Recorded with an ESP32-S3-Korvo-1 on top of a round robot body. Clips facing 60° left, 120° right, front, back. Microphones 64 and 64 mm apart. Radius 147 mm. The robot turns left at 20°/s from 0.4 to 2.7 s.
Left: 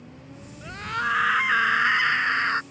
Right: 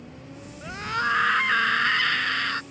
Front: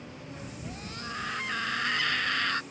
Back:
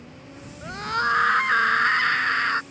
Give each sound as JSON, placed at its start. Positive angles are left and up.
{"t": 0.6, "sound": "a scream", "azimuth_deg": 160}